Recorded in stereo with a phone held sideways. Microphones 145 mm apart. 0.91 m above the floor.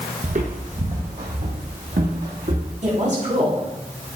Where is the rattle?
No rattle in this recording.